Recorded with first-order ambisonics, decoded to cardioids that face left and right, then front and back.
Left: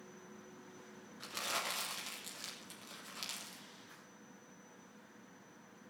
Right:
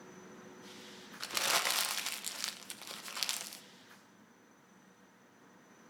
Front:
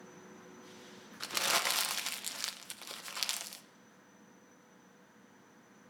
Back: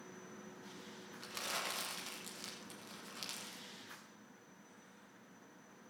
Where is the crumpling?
40° right, 0.9 m.